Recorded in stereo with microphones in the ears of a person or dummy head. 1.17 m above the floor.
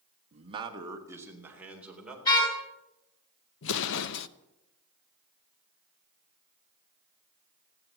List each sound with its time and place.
0.3 s a man speaking: 35° right (ahead or behind), 1.5 m; by 2.1 s centre (ahead or behind), 3.5 m
2.2 s a car horn: 20° left (ahead or behind), 7 m
3.6 s an explosion: 70° left (ahead or behind), 0.8 m